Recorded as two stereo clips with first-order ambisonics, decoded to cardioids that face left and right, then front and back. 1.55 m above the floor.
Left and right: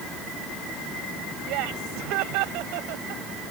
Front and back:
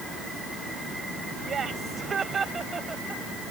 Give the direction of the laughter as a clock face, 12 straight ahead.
4 o'clock.